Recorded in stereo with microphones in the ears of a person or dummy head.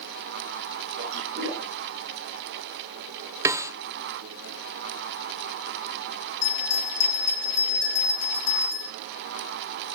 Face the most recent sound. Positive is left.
turn(degrees=75)  # may be behind; listen again after turning